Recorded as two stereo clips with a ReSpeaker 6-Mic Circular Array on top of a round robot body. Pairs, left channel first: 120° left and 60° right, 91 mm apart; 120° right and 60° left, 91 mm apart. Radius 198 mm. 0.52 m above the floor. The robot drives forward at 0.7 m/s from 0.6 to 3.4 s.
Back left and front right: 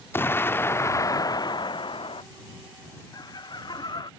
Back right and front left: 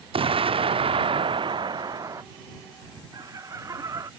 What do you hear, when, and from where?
0.1 s an explosion: 55° left; by 2.2 s 110° left
3.1 s laughter: 90° left; by 4.1 s 100° left